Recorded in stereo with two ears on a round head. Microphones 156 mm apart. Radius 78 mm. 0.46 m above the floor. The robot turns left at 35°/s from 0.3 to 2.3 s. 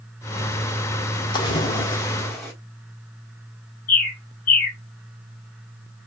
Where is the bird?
50° left (ahead or behind), 1.7 m.